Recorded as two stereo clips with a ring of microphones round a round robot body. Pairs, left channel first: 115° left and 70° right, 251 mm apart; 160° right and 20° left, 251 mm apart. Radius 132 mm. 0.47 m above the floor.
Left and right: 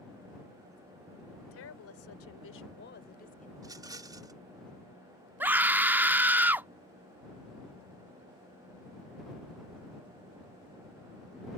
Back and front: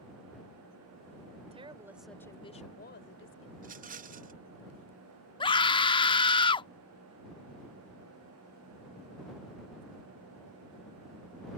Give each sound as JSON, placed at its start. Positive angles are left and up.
{"t": 1.5, "sound": "a woman speaking", "azimuth_deg": 85}
{"t": 3.6, "sound": "a rattle", "azimuth_deg": 0}
{"t": 5.4, "sound": "a scream", "azimuth_deg": -140}